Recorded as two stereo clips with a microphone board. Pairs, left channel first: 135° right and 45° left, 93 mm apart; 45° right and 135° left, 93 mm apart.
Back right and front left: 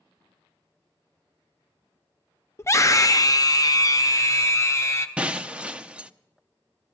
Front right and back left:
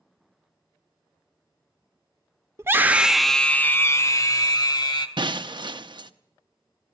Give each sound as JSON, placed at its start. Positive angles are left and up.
{"t": 2.6, "sound": "a scream", "azimuth_deg": 180, "distance_m": 0.7}
{"t": 5.2, "sound": "breaking glass", "azimuth_deg": 120, "distance_m": 0.6}